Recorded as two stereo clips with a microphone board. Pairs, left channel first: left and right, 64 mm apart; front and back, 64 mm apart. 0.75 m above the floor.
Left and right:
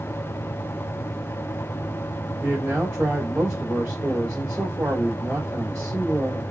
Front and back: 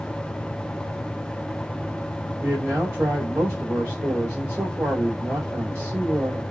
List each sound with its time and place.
2.4 s a man speaking: 140° right, 3 m